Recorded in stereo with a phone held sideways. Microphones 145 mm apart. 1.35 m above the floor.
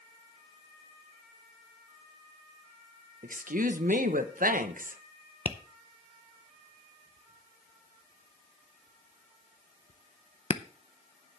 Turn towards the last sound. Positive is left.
turn(degrees=45)  # may be behind; listen again after turning